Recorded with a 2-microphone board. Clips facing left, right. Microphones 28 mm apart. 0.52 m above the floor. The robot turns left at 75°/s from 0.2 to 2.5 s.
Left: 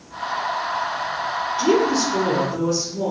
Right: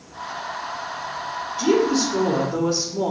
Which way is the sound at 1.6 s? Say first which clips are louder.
Even; 30° left.